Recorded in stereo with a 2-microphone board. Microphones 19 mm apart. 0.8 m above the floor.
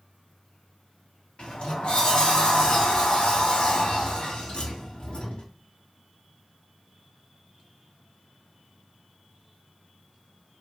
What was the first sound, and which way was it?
A sliding door, 55° left (ahead or behind).